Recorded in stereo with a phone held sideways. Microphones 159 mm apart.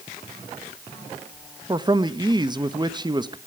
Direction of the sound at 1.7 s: 25° right (ahead or behind).